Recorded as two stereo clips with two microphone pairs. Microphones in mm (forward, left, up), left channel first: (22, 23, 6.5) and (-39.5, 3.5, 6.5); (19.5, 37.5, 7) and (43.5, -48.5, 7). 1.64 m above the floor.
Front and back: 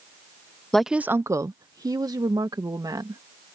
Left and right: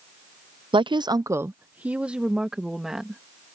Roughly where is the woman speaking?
Ahead right.